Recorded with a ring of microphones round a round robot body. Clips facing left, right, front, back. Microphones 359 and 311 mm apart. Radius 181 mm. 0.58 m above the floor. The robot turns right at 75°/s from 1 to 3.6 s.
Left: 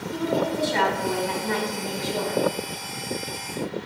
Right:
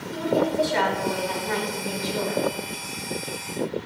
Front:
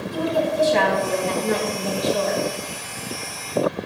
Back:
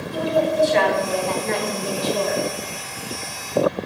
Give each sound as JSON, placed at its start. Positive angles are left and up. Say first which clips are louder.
{"t": 0.1, "sound": "a woman speaking", "louder": "right 2 dB, back 2 dB", "azimuth_deg": 45, "distance_m": 4.5}